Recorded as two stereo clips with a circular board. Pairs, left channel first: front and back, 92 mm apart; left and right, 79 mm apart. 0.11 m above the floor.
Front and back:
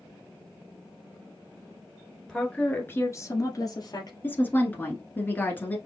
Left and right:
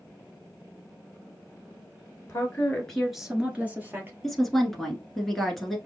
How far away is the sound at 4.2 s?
About 1.1 m.